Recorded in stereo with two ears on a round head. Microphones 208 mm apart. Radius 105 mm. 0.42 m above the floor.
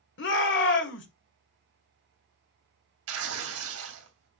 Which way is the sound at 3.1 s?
65° right (ahead or behind).